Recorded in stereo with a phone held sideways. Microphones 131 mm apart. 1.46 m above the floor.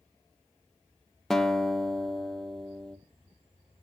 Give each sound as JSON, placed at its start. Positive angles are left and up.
{"t": 1.3, "sound": "a guitar", "side_deg": 0, "distance_m": 1.2}